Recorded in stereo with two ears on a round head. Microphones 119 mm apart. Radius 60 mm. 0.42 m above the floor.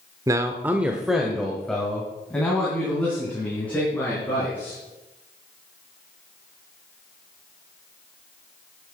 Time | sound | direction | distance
0.3 | a man speaking | 25° right (ahead or behind) | 0.8 m